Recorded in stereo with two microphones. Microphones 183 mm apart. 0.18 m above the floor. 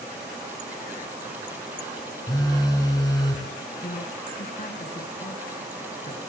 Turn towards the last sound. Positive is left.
turn(degrees=50)  # may be behind; listen again after turning